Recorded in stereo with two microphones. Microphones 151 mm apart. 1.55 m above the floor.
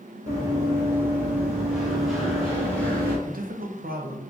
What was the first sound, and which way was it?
Running footsteps, 20° right (ahead or behind).